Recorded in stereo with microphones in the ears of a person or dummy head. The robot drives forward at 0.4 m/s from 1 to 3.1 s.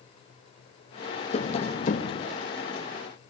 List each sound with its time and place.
1.3 s tapping: 35° left (ahead or behind), 0.7 m; by 2.2 s 40° left (ahead or behind), 0.6 m